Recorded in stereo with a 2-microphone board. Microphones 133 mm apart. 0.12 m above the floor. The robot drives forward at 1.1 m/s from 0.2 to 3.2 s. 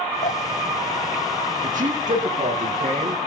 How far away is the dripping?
About 1.2 m.